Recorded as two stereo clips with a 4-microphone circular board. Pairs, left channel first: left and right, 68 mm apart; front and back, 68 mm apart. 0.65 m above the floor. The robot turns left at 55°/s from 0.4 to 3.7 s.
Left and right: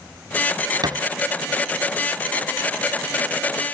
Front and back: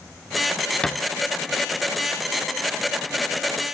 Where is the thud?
80° right, 0.6 m; by 1.0 s 90° right, 0.6 m.